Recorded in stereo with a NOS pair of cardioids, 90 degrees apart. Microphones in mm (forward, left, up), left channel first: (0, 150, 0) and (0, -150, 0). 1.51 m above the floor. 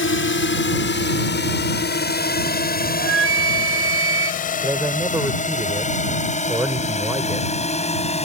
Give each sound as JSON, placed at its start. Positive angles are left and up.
{"t": 0.0, "sound": "a drone", "azimuth_deg": 45}
{"t": 3.0, "sound": "a flute", "azimuth_deg": -50}
{"t": 4.6, "sound": "a man speaking", "azimuth_deg": -10}